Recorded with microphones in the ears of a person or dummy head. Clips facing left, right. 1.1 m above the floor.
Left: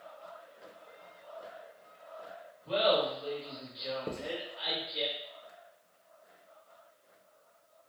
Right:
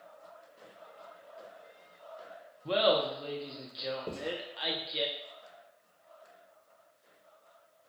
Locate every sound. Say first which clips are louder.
2.6 s laughter: right 1 dB; 65° right (ahead or behind), 0.6 m
4.1 s writing: right 1 dB; 15° left (ahead or behind), 0.6 m